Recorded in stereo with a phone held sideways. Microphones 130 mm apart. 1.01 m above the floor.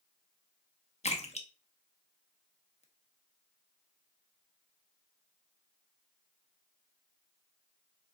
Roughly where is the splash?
Left.